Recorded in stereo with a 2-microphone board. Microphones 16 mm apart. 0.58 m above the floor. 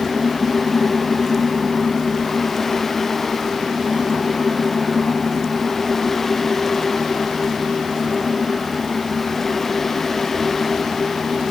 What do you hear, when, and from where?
Only background noise.